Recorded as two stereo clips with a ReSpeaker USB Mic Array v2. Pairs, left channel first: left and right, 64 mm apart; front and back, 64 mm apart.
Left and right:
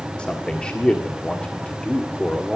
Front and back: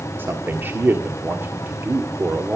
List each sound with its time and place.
0.2 s a man speaking: 155° left, 1.5 m